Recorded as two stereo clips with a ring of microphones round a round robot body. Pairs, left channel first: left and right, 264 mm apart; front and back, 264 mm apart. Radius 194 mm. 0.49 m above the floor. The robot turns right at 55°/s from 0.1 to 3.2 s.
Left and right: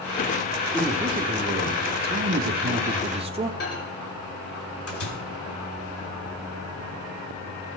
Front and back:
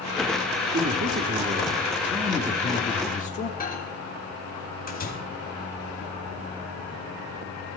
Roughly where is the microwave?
Ahead left.